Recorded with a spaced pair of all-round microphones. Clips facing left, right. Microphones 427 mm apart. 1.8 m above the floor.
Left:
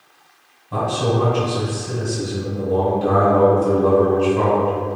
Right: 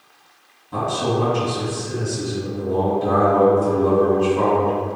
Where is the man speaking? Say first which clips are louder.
Left 2 dB; 65° left (ahead or behind), 1.7 m.